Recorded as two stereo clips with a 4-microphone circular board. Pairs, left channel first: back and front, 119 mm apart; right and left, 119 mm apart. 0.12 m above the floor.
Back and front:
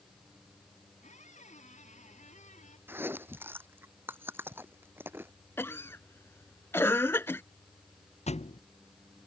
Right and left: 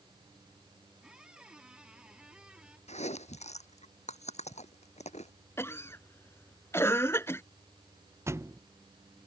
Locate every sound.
1.0 s a squeak: 175° left
2.9 s chewing: 70° right
5.6 s a cough: 135° right
8.3 s a thud: 155° left